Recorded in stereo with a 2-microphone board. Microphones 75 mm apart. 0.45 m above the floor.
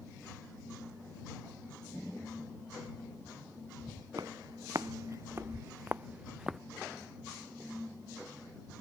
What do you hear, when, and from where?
4.2 s footsteps: 60° right (ahead or behind); by 6.6 s 5° right (ahead or behind)